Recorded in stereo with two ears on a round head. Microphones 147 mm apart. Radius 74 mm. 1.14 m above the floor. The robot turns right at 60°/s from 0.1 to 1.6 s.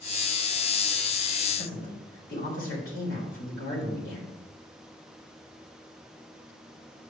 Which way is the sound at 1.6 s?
70° left (ahead or behind).